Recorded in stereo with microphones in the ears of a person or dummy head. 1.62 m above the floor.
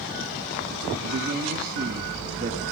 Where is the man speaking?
50° right (ahead or behind), 2.5 m; by 2.6 s 40° right (ahead or behind), 1.8 m.